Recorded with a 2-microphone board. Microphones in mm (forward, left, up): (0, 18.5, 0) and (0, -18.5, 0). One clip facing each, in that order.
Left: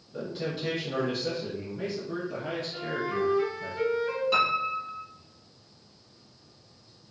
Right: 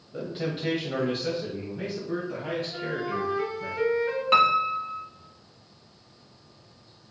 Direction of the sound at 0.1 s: 25° right (ahead or behind).